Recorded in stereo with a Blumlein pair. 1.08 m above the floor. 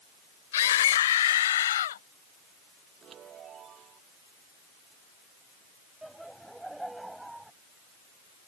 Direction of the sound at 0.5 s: 60° left.